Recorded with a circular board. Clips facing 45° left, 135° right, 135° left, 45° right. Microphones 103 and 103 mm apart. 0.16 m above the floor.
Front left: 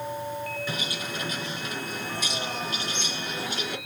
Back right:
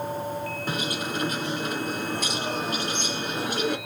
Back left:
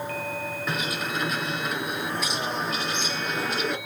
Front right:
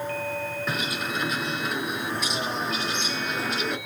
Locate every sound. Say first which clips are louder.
0.7 s a bird: back right 4 dB, back left 3 dB; 135° right, 2.5 m